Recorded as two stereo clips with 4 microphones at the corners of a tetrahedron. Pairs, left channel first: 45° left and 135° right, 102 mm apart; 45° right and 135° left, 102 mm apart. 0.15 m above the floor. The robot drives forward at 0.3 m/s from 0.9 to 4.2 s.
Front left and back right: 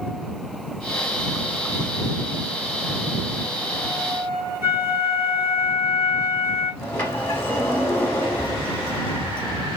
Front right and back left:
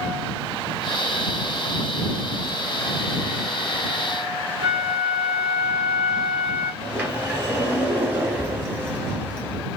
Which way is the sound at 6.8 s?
95° left.